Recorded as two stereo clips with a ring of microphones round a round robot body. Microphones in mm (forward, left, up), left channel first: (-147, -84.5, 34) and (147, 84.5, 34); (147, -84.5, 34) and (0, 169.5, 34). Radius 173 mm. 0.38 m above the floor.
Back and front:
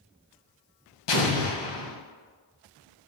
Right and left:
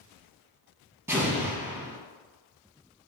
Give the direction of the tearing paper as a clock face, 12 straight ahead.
I don't hear tearing paper.